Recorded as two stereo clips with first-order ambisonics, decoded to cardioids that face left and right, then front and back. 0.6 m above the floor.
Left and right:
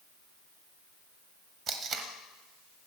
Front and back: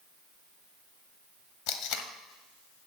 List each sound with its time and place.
1.7 s tape being pulled: 25° right, 1.1 m